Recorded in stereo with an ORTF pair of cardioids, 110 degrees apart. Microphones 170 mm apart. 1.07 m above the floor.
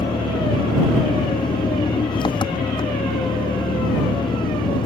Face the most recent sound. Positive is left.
turn(degrees=30)